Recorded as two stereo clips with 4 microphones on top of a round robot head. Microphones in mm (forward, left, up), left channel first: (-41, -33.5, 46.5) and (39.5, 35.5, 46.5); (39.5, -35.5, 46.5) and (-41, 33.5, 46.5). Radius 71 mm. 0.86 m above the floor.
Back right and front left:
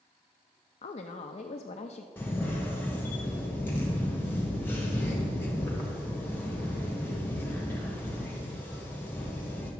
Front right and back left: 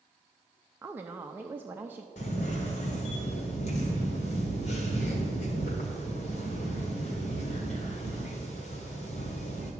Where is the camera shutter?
65° right, 1.5 m.